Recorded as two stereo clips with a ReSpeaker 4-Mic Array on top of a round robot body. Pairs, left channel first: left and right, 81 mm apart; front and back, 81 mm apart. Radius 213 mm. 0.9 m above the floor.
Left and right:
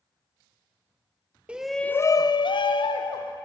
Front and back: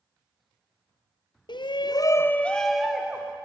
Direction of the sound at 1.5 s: 15° right.